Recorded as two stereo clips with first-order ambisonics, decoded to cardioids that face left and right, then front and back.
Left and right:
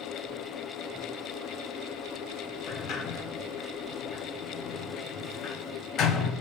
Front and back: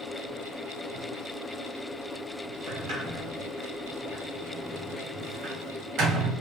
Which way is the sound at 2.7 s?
140° left.